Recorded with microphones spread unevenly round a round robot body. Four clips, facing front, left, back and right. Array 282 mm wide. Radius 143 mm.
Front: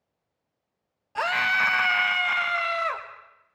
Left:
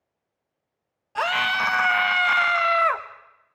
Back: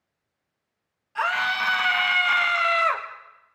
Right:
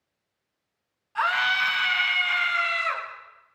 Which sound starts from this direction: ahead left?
A scream, at 1.1 s.